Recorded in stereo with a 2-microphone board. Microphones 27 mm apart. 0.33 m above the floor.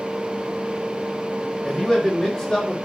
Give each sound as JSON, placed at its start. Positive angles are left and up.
{"t": 1.6, "sound": "a man speaking", "side_deg": 15, "distance_m": 2.0}